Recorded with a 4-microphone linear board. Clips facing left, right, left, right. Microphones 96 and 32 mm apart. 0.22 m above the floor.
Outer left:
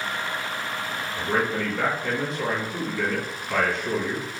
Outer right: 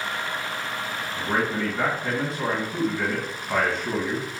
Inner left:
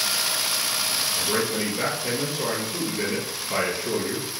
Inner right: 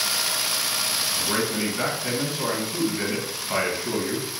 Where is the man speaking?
30° right (ahead or behind), 1.5 m.